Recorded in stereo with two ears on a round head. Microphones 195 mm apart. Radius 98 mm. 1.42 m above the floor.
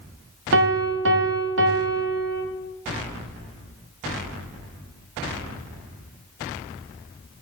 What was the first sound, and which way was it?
A piano, 60° right (ahead or behind).